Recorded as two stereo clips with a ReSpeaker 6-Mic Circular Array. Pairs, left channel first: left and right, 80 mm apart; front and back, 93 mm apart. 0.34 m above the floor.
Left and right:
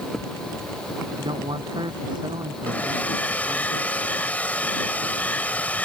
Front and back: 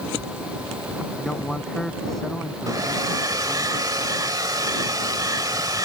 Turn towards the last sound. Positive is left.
turn(degrees=155)